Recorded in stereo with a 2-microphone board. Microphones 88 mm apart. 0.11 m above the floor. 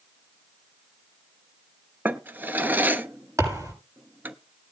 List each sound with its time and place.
2.0 s a drawer: 20° right (ahead or behind), 0.9 m
3.4 s a thud: 35° right (ahead or behind), 8 m